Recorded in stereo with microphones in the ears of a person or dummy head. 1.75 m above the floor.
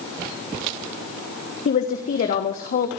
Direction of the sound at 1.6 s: 45° left (ahead or behind).